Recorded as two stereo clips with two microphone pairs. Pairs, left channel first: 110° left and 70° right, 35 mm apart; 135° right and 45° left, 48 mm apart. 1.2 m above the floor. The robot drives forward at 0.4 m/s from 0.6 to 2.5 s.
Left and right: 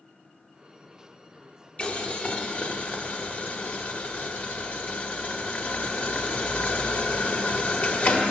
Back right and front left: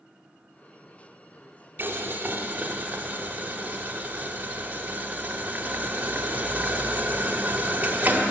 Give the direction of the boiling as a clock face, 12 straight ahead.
10 o'clock.